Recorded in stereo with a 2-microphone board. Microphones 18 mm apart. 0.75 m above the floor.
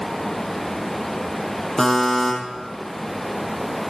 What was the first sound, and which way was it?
A buzzer, 20° left (ahead or behind).